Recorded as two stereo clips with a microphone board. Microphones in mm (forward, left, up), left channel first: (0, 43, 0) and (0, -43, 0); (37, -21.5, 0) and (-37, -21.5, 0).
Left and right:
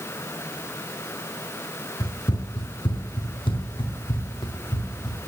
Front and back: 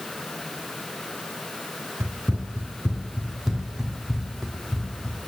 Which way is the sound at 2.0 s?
135° left.